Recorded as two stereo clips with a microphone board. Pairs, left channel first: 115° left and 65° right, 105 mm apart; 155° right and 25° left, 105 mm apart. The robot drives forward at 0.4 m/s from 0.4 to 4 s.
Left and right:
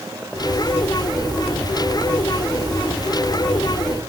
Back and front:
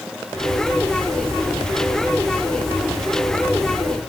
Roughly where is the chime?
I don't hear a chime.